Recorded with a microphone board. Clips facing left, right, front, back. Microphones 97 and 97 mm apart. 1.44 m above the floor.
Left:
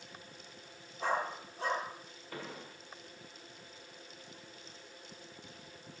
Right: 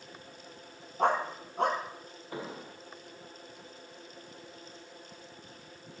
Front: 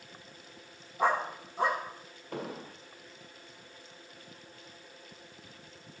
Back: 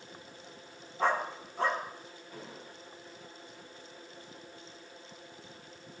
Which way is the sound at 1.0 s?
75° right.